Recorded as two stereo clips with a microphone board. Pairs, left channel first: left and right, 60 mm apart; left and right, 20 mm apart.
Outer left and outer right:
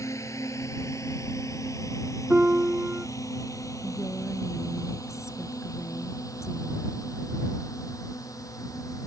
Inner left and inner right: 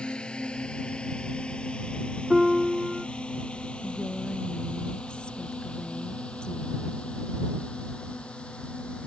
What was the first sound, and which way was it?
A drone, 60° left (ahead or behind).